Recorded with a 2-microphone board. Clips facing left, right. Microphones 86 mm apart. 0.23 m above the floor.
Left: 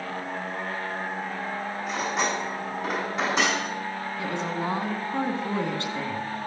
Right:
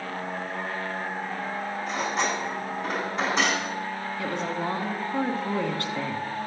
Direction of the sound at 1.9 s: 5° left (ahead or behind).